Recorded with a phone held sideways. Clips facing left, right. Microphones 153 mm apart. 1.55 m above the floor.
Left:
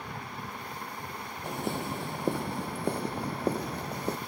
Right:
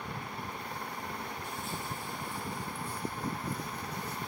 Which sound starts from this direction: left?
Footsteps, at 1.4 s.